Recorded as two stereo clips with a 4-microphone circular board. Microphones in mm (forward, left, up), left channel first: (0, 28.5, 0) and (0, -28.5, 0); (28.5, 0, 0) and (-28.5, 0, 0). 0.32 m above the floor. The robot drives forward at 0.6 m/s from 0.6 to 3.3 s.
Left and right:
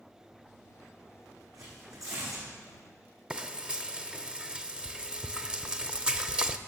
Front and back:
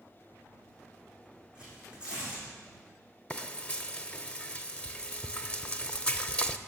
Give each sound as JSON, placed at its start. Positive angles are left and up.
{"t": 1.6, "sound": "tearing paper", "azimuth_deg": -105, "distance_m": 7.0}
{"t": 3.3, "sound": "frying", "azimuth_deg": -40, "distance_m": 0.6}